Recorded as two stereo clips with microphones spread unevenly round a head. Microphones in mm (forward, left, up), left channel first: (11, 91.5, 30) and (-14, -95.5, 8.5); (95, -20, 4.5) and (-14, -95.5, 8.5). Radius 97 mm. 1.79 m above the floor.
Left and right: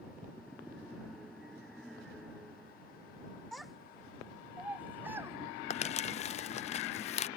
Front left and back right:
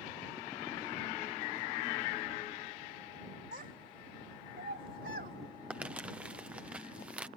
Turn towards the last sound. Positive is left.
turn(degrees=135)